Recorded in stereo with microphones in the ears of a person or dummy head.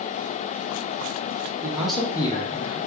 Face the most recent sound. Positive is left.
turn(degrees=45)  # may be behind; listen again after turning